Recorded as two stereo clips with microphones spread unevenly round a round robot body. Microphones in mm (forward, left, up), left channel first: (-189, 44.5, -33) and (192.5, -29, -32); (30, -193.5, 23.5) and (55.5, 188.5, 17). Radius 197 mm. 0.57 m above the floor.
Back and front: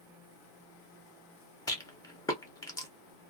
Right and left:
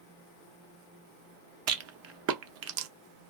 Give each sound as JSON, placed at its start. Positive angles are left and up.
{"t": 1.7, "sound": "a rattle", "azimuth_deg": 95, "distance_m": 0.6}